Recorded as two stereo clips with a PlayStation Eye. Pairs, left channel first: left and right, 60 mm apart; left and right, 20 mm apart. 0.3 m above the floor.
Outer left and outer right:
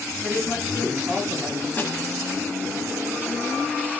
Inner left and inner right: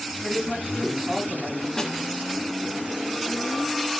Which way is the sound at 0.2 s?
10° right (ahead or behind).